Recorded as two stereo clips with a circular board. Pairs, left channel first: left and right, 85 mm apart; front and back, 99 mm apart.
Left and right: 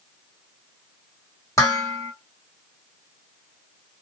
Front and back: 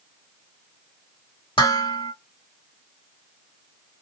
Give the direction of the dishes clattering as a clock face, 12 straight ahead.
11 o'clock.